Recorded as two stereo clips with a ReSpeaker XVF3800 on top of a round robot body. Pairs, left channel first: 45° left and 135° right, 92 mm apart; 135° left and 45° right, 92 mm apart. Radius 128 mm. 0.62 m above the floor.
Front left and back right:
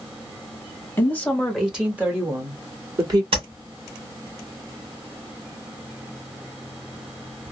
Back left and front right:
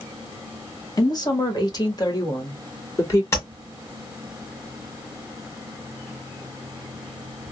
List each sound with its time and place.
1.0 s a woman speaking: 105° left, 1.3 m; by 3.2 s 175° right, 2 m
3.3 s tapping: 165° right, 1.6 m